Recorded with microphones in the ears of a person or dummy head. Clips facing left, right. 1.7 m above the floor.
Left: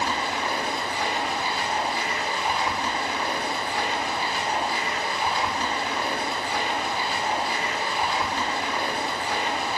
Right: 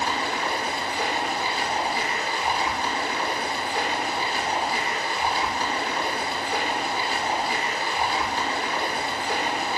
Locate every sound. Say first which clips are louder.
0.0 s running water: even; 35° right (ahead or behind), 0.8 m